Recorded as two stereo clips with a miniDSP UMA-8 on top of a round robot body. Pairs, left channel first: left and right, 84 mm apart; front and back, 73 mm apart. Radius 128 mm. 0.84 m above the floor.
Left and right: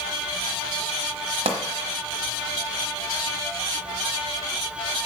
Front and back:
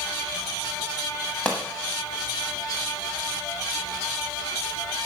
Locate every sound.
1.4 s a pop: 75° right, 0.9 m